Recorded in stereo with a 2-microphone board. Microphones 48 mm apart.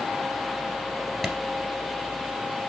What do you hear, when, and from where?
1.2 s a clap: centre (ahead or behind), 1.8 m